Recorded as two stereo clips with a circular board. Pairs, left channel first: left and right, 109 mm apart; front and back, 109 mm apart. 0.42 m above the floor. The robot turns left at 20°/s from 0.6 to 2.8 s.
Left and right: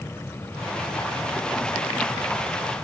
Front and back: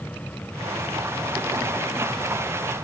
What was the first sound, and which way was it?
Only background noise.